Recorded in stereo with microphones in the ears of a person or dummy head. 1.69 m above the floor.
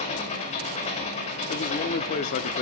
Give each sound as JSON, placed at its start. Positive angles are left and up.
{"t": 0.0, "sound": "an engine running", "side_deg": 40, "distance_m": 2.5}
{"t": 1.5, "sound": "a man speaking", "side_deg": 45, "distance_m": 0.6}